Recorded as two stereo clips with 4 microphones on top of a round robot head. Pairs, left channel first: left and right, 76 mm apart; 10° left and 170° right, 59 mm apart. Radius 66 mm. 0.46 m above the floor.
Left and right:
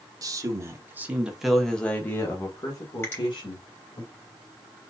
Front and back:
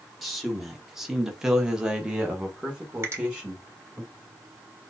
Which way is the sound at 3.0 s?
150° left.